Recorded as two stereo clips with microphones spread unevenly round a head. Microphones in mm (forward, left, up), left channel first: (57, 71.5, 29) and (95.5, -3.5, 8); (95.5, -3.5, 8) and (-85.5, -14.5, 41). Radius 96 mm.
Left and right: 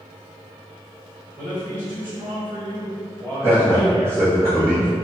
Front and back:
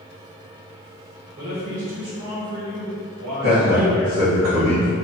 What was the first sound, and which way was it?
A man speaking, 160° right.